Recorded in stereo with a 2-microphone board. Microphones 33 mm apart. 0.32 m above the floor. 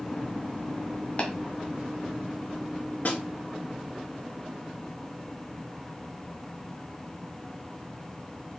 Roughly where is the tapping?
Left.